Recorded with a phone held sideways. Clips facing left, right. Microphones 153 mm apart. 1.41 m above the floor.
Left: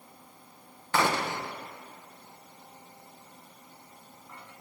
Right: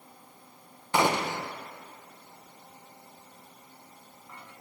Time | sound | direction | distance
0.9 | a gunshot | 15° right (ahead or behind) | 0.5 m